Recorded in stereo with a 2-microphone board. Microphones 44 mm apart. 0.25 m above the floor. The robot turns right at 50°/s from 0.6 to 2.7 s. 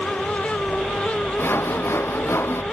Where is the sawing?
55° left; by 2.6 s 120° left.